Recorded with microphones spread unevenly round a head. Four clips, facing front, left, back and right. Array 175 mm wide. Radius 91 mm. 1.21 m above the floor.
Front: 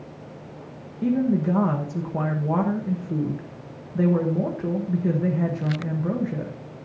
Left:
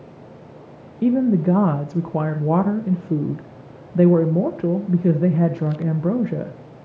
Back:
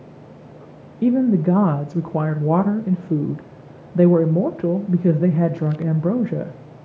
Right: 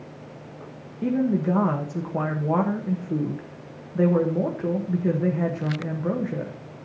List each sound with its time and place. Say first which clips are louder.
1.0 s a woman speaking: left 5 dB, back 5 dB; 160° left, 1.0 m